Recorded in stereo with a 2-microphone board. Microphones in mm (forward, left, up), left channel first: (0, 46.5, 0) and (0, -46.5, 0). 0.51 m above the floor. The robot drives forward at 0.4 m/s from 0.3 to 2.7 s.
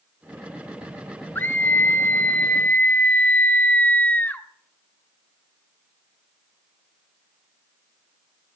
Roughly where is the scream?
Left.